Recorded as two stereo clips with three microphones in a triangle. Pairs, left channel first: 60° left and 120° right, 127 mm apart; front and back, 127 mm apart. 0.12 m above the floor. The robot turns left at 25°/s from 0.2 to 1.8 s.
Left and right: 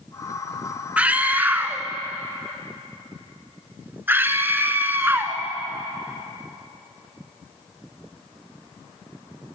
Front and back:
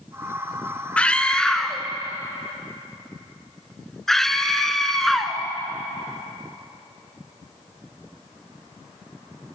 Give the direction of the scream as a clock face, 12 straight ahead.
2 o'clock.